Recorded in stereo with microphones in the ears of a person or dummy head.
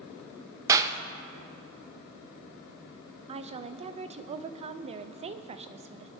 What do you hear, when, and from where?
0.7 s a clap: 20° right (ahead or behind), 0.5 m
3.3 s a woman speaking: 35° right (ahead or behind), 0.6 m